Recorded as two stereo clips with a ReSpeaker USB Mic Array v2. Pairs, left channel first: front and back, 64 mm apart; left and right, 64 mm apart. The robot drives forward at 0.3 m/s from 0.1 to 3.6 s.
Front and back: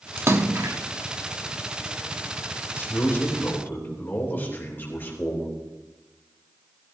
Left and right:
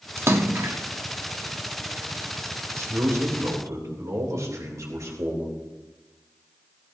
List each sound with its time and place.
0.2 s a splash: 135° right, 1.0 m; by 0.8 s 140° right, 1.1 m
2.7 s a man speaking: 55° right, 3 m; by 5.5 s 60° right, 3 m